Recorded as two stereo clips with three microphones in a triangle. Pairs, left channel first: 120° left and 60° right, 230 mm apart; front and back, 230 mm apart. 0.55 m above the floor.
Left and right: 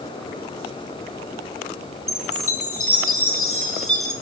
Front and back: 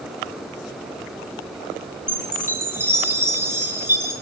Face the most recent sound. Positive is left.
turn(degrees=100)